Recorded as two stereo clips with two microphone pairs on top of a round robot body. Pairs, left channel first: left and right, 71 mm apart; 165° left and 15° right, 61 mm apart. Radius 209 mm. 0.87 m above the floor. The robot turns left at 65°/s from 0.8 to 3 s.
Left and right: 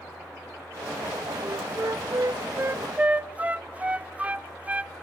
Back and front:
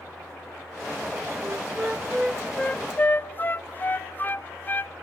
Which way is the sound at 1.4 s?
55° right.